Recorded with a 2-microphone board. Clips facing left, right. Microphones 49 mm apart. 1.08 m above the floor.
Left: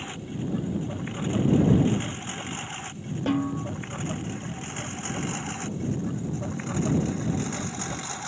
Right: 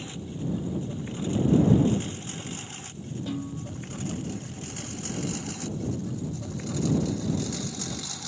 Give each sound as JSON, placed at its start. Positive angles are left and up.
{"t": 0.0, "sound": "a lawn mower", "side_deg": 35}
{"t": 3.3, "sound": "a snare drum", "side_deg": 60}